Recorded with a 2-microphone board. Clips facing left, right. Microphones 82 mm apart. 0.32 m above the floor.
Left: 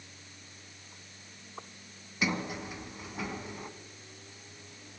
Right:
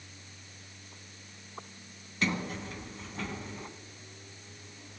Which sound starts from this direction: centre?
A sliding door, at 2.2 s.